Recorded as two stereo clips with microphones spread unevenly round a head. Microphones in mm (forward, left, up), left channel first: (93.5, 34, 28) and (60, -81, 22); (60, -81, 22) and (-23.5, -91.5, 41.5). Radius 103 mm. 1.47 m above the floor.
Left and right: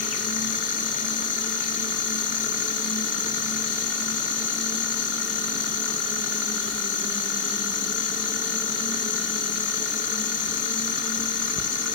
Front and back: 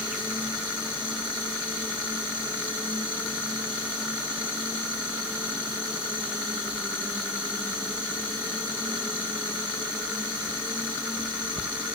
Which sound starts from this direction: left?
An insect, at 0.0 s.